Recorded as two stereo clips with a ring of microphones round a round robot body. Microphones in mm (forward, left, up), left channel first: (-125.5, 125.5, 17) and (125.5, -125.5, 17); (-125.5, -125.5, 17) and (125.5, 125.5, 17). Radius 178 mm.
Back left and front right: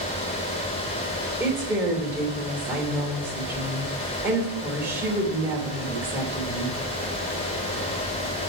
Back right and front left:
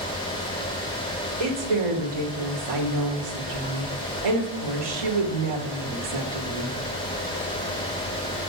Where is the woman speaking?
40° left, 3 m.